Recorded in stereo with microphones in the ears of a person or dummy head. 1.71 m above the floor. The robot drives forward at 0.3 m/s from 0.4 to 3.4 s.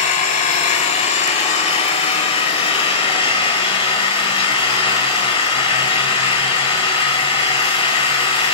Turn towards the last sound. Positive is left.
turn(degrees=35)  # may be behind; listen again after turning